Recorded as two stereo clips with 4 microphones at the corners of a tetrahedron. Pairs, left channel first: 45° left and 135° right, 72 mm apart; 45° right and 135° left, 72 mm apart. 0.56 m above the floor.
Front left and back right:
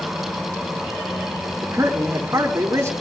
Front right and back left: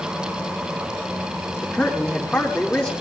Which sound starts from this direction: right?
A man speaking, at 1.6 s.